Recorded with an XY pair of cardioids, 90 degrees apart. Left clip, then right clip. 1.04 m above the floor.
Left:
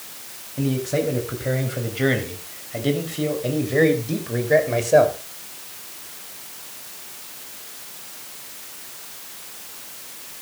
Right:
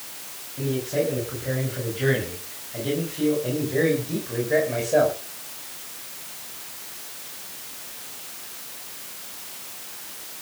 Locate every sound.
0.6 s a man speaking: 60° left, 7.5 m; by 5.2 s 50° left, 5.5 m